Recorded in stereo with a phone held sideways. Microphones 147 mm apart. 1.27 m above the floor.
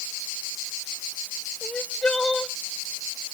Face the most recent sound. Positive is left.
turn(degrees=10)  # may be behind; listen again after turning